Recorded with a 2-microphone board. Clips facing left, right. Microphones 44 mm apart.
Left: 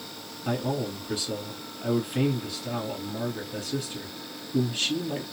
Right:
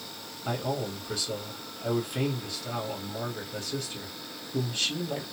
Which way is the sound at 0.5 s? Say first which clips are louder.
Left 2 dB; 10° left (ahead or behind).